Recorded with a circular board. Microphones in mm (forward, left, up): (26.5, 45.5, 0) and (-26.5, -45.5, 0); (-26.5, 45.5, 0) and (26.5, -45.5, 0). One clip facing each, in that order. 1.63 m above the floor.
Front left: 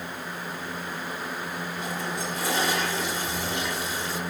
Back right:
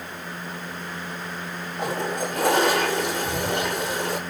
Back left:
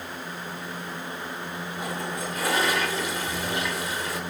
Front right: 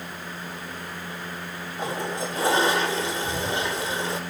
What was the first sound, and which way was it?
A toilet flushing, 115° right.